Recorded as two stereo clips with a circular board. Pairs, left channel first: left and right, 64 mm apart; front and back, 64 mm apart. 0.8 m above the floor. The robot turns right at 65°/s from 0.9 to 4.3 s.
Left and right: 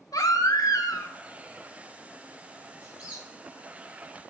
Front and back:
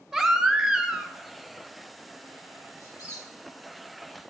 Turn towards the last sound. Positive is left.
turn(degrees=70)